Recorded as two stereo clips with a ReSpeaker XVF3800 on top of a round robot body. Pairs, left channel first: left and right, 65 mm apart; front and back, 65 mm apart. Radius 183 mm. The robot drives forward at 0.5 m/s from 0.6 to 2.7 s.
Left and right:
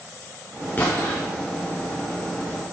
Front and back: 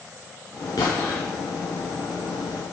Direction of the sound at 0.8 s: 35° left.